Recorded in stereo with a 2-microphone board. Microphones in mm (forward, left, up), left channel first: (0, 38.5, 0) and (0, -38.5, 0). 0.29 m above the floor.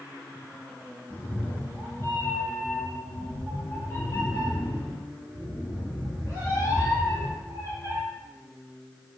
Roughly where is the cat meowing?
Left.